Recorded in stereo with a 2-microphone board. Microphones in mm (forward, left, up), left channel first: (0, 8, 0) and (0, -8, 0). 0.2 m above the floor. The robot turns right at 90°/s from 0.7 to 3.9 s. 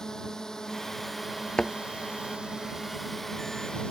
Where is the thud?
60° left (ahead or behind); by 1.7 s 50° left (ahead or behind).